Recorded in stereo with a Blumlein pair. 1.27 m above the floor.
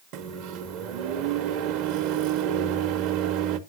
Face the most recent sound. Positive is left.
turn(degrees=-45)